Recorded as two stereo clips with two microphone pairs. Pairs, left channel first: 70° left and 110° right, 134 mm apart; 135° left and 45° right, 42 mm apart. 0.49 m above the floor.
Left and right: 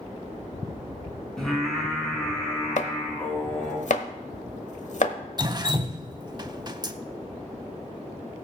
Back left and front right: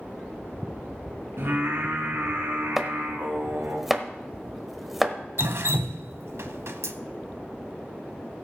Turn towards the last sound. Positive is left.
turn(degrees=-50)